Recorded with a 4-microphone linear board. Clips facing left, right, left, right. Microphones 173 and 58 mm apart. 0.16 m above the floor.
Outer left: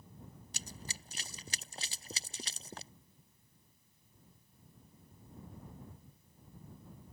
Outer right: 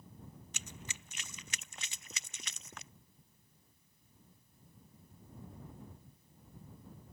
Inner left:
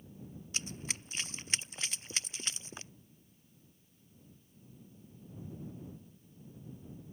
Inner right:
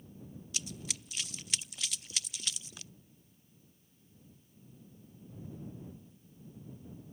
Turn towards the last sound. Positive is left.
turn(degrees=35)  # may be behind; listen again after turning